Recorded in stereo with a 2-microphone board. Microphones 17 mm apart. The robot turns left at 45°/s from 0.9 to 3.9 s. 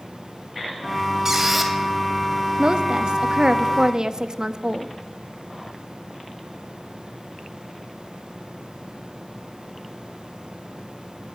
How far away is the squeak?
About 1.7 m.